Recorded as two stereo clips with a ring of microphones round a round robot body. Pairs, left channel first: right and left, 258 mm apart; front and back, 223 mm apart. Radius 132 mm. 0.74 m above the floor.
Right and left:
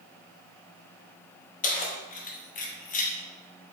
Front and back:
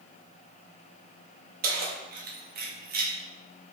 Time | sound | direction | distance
1.6 | keys jangling | 140° right | 0.7 m